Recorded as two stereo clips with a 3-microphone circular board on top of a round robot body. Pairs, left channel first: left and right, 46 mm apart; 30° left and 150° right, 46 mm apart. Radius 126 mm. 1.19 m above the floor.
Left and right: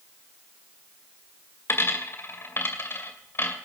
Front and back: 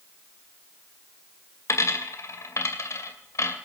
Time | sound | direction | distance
1.7 | a dropped coin | 50° left | 2.5 m